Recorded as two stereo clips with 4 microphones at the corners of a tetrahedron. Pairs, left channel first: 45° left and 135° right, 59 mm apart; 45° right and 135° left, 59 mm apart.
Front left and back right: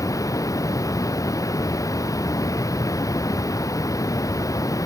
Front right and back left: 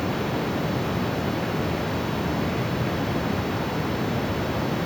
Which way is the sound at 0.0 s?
40° left.